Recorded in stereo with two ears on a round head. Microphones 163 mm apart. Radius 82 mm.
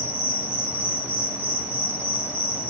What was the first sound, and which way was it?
An insect, 10° left (ahead or behind).